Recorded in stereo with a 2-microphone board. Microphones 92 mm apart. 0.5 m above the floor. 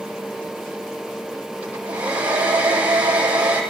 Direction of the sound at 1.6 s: 15° right (ahead or behind).